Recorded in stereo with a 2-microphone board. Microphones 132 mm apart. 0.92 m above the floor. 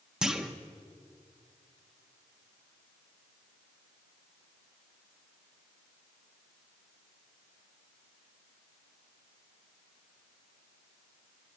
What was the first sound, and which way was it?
A clunk, 5° right (ahead or behind).